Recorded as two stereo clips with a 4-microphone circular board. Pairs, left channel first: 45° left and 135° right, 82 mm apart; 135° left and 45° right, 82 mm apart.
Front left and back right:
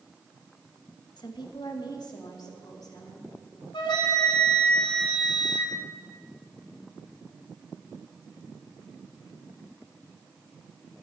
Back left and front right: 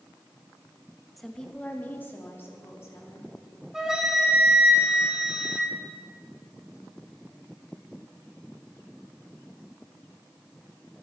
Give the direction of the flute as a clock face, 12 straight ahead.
11 o'clock.